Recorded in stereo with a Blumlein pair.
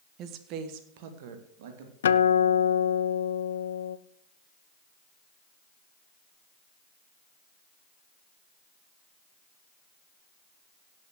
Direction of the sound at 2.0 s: 65° left.